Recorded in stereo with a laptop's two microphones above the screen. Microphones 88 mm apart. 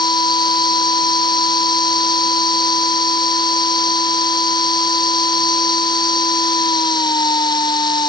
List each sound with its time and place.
0.0 s a machine running: 55° left (ahead or behind)